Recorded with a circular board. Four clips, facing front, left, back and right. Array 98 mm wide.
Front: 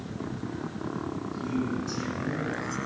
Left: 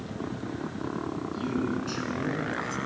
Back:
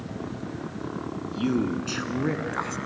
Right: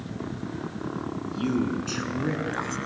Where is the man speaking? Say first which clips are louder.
Right 5 dB, back 7 dB; 155° right, 3.5 m; by 2.8 s 165° right, 2.5 m.